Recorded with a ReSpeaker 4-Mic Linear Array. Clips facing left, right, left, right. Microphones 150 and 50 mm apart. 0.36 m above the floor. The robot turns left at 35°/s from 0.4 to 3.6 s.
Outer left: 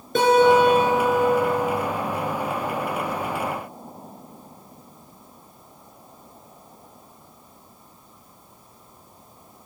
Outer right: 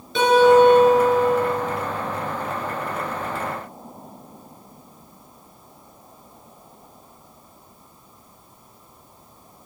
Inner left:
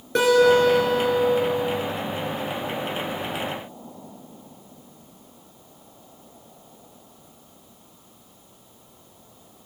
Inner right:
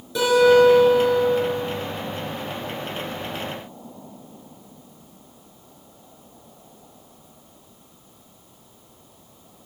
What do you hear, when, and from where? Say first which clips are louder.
0.1 s a guitar: outer right 2 dB, inner right 2 dB; 125° left, 3.5 m; by 1.7 s 80° left, 3.5 m